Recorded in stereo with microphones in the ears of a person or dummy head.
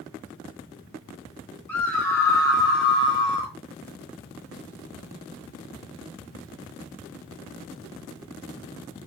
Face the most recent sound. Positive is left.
turn(degrees=30)  # may be behind; listen again after turning